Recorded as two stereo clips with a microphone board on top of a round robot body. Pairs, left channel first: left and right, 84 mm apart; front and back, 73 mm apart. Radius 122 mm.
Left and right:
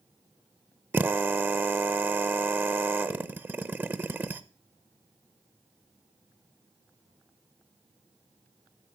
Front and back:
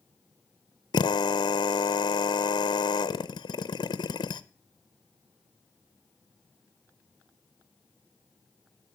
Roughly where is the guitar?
I don't hear a guitar.